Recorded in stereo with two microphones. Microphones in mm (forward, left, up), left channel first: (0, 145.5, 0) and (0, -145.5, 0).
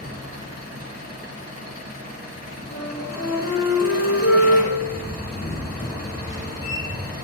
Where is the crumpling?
No crumpling in this recording.